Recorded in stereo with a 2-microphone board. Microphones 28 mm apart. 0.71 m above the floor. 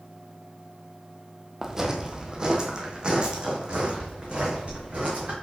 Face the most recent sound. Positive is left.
turn(degrees=-40)  # may be behind; listen again after turning